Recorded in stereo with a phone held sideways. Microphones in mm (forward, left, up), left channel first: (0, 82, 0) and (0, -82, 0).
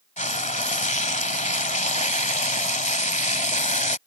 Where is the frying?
50° left (ahead or behind).